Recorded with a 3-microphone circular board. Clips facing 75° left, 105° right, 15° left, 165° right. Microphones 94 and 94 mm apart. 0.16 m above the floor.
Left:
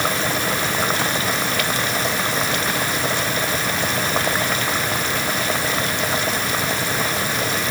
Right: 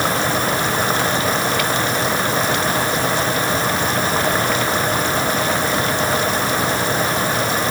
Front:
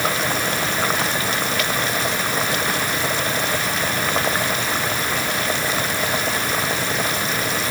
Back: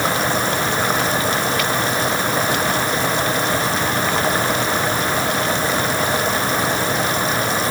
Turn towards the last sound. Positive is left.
No sound to turn to.